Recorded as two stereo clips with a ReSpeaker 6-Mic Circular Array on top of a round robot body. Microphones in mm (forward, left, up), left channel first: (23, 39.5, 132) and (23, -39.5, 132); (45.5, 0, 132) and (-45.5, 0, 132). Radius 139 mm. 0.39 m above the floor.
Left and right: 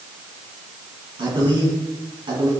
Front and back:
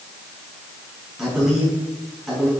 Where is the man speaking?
95° right, 4.5 m.